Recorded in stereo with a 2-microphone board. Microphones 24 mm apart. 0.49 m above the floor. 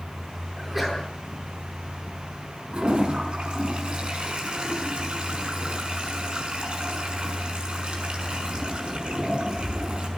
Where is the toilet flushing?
45° right (ahead or behind), 6 m.